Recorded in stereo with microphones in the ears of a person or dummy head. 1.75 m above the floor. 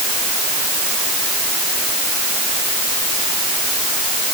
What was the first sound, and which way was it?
Only background noise.